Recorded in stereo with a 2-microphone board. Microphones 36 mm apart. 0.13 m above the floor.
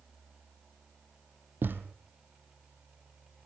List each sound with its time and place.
1.6 s a thud: 80° right, 1.1 m